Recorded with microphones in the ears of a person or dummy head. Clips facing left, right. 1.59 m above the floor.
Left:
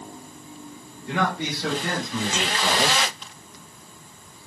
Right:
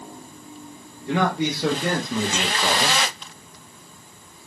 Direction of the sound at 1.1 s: 80° right.